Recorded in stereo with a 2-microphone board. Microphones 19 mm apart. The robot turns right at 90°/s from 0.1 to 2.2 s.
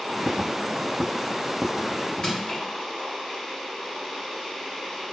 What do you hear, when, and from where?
2.2 s crushing: 50° left (ahead or behind), 1.9 m